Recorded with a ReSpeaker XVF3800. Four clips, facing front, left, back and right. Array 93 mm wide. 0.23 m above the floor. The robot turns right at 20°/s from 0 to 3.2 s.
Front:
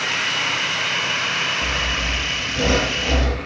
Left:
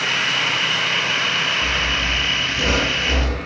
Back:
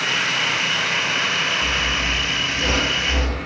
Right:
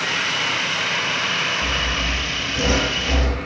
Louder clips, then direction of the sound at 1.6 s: Left 2 dB, back 1 dB; 35° right.